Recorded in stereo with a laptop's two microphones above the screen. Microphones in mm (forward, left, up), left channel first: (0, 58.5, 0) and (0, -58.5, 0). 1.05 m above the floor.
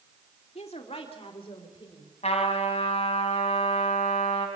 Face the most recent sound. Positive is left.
turn(degrees=65)  # may be behind; listen again after turning